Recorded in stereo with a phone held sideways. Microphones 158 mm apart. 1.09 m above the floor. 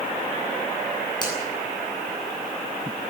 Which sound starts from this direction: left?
A finger snap, at 1.2 s.